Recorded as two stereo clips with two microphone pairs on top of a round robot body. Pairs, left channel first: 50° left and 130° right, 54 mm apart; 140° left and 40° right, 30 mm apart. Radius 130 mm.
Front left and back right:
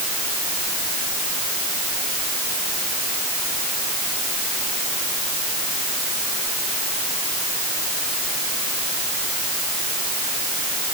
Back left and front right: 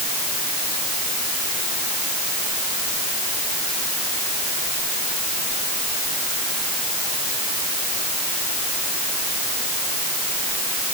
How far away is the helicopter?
I don't hear a helicopter.